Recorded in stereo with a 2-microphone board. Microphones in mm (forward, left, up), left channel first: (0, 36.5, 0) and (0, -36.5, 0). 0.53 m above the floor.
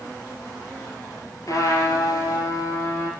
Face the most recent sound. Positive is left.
turn(degrees=55)  # may be behind; listen again after turning